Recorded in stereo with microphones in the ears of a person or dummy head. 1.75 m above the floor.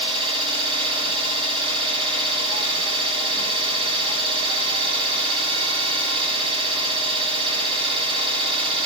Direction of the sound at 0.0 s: 30° right (ahead or behind).